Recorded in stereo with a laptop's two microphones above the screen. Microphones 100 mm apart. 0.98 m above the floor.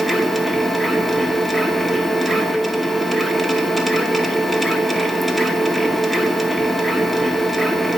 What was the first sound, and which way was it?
A machine running, centre (ahead or behind).